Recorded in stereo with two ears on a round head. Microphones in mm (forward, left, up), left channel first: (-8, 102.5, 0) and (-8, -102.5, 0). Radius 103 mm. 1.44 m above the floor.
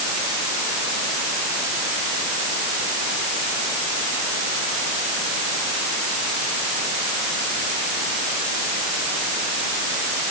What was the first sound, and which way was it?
Only background noise.